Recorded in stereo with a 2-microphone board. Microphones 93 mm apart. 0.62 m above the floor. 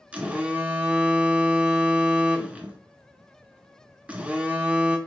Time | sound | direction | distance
0.1 | a phone buzzing | 15° right (ahead or behind) | 0.6 m